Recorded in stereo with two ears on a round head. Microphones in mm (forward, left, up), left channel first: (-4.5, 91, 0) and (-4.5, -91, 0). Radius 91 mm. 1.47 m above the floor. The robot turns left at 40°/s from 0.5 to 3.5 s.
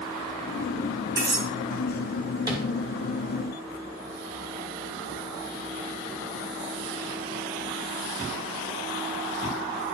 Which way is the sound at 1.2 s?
20° right (ahead or behind).